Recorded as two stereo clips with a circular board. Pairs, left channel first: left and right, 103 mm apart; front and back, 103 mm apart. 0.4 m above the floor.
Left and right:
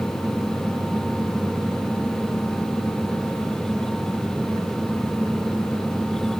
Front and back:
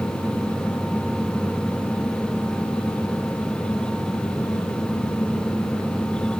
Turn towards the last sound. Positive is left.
No sound to turn to.